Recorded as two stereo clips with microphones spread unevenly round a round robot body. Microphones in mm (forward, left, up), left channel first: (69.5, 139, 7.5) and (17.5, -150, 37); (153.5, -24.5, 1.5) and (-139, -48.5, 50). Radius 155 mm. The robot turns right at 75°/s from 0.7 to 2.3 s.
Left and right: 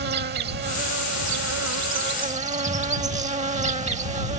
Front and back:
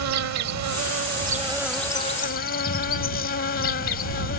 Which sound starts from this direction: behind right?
An insect, at 0.0 s.